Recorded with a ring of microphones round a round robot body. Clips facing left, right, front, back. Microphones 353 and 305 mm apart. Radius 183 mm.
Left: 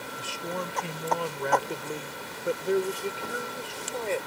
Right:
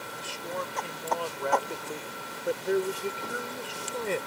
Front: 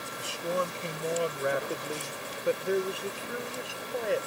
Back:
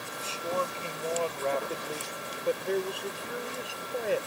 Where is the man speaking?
65° left; by 4.3 s 100° right.